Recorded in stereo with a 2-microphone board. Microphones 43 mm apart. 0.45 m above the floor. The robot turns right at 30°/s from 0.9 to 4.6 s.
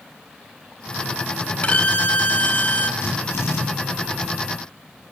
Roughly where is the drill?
Left.